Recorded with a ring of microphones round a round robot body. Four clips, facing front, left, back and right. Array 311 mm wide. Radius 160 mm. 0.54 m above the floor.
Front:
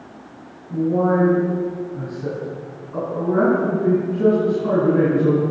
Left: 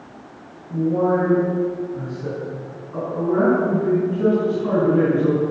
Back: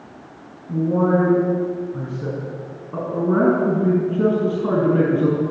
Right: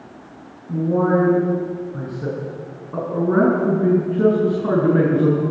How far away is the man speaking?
About 7.5 m.